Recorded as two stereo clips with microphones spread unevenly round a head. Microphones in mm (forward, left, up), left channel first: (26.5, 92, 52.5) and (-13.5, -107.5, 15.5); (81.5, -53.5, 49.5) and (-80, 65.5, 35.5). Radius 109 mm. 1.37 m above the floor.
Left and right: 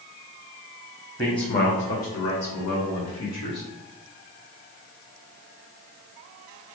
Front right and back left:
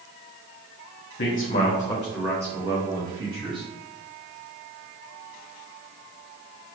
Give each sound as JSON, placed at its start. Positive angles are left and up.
{"t": 1.2, "sound": "a man speaking", "azimuth_deg": 0, "distance_m": 0.8}